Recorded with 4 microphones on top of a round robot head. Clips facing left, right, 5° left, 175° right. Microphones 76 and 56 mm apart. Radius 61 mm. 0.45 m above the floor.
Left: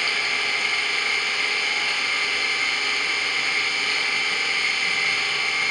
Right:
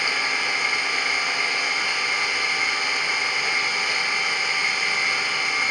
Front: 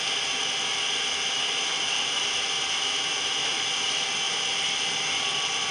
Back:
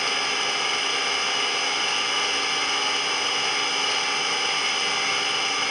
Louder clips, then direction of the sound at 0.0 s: Right 1 dB, back 5 dB; 160° right.